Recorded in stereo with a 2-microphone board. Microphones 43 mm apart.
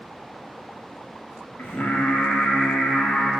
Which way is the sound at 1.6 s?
45° left (ahead or behind).